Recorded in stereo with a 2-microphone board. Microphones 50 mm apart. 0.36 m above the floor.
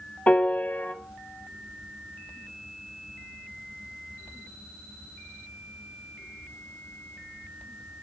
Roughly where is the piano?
Left.